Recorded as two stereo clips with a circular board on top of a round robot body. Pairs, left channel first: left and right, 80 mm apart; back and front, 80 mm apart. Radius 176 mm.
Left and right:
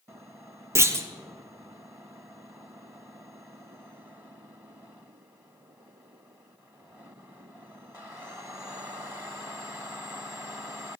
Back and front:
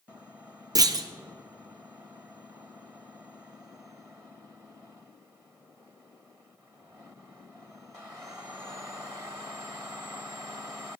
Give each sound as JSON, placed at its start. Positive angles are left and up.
{"t": 0.8, "sound": "a clunk", "azimuth_deg": -35, "distance_m": 1.0}